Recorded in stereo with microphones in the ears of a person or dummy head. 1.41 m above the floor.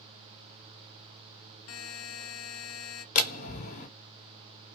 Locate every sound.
1.7 s a buzzer: 60° left (ahead or behind), 0.6 m
3.1 s a door slam: 45° left (ahead or behind), 1.1 m